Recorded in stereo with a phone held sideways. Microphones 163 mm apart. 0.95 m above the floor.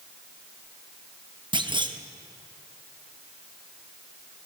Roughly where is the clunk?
Right.